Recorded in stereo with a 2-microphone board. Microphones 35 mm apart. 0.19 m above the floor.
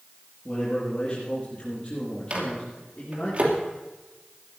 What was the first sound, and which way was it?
A man speaking, 25° left (ahead or behind).